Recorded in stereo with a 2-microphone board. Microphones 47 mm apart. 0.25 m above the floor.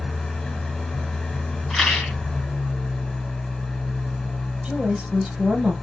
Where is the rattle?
5° left (ahead or behind), 2.5 m.